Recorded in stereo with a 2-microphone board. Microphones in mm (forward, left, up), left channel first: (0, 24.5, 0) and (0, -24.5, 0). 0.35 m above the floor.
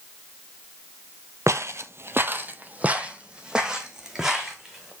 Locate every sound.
1.5 s footsteps: 65° right (ahead or behind), 0.6 m; by 4.9 s 5° right (ahead or behind), 1.9 m